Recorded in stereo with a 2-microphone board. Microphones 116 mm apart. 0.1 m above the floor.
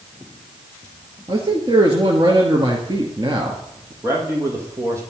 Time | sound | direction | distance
1.3 | a man speaking | 40° right (ahead or behind) | 1.8 m
4.0 | a man speaking | 25° right (ahead or behind) | 4 m